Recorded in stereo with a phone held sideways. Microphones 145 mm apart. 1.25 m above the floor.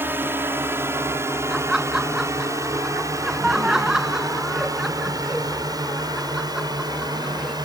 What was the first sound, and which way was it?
A drone, 15° right (ahead or behind).